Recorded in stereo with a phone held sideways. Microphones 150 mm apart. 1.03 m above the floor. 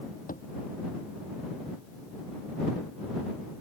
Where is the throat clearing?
I don't hear throat clearing.